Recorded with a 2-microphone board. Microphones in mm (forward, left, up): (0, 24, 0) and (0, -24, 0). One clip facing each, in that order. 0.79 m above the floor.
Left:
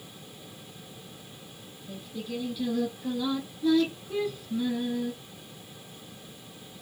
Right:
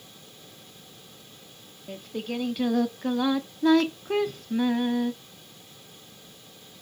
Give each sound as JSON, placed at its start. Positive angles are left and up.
{"t": 1.9, "sound": "singing", "side_deg": -60, "distance_m": 0.6}